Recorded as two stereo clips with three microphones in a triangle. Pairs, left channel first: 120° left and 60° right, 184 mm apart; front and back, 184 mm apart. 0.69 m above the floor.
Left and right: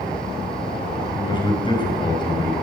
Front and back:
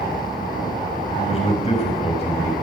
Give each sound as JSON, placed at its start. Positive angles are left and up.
{"t": 1.2, "sound": "a man speaking", "azimuth_deg": 55, "distance_m": 4.5}